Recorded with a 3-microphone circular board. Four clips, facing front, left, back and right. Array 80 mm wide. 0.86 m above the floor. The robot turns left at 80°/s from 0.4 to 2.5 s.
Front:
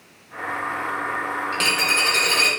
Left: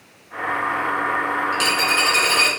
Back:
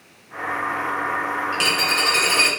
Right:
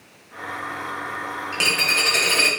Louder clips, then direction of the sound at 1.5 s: Left 4 dB, back 1 dB; 45° right.